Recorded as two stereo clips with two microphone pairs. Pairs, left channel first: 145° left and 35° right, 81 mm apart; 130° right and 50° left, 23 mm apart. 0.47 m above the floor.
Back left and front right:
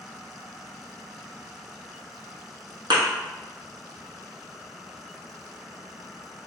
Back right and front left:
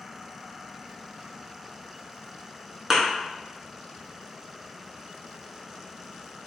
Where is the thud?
20° right, 1.2 m.